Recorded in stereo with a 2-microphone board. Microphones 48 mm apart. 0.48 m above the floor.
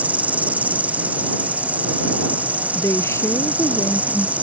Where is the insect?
35° right (ahead or behind).